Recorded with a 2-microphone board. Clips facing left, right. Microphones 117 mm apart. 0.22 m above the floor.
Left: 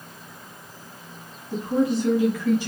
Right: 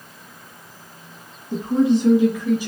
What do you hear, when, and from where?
1.5 s a woman speaking: 25° right (ahead or behind), 2.5 m; by 2.7 s 10° right (ahead or behind), 1.4 m